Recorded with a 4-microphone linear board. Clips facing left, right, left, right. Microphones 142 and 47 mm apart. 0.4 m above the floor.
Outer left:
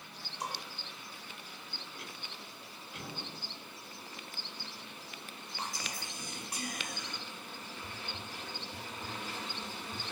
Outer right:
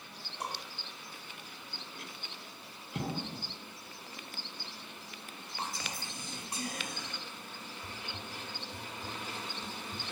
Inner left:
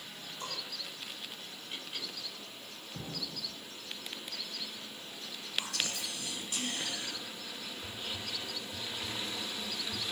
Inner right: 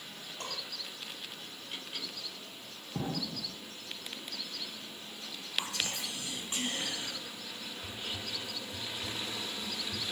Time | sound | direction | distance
0.4 | dishes clattering | 55° right (ahead or behind) | 6.5 m
3.0 | an explosion | 60° right (ahead or behind) | 0.6 m
5.6 | whispering | 25° right (ahead or behind) | 3.5 m
7.8 | whispering | 15° right (ahead or behind) | 2 m